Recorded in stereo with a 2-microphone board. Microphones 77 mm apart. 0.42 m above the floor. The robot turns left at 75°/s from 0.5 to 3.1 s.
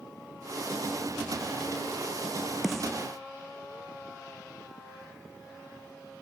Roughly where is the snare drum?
Centre.